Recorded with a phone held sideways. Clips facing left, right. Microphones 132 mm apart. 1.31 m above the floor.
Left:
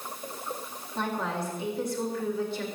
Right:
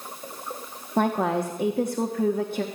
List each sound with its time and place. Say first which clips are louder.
1.0 s a woman speaking: right 8 dB; 55° right (ahead or behind), 1.2 m